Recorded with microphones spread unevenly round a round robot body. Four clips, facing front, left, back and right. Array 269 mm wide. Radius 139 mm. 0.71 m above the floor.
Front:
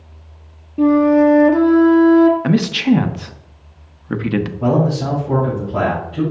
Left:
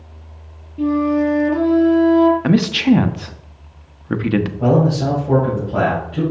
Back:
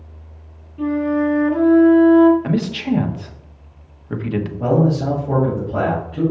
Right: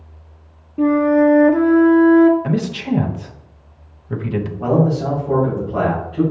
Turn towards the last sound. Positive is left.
turn(degrees=135)